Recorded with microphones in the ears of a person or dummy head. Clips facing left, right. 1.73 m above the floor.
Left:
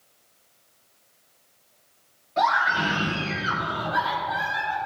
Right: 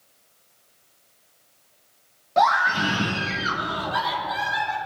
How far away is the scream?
About 1.1 m.